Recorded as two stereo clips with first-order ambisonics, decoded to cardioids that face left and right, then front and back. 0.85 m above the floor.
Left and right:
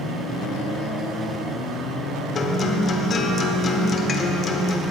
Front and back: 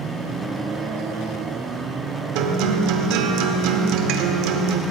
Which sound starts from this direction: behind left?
A guitar, at 2.4 s.